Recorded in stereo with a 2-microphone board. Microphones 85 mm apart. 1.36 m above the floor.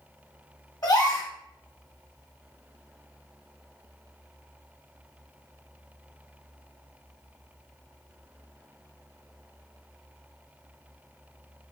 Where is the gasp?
45° left (ahead or behind), 1.0 m.